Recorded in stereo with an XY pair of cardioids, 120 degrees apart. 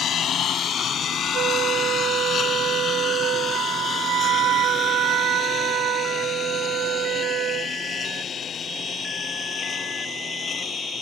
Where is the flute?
70° right.